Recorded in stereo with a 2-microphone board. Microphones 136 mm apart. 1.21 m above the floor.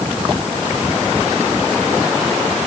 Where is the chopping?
I don't hear chopping.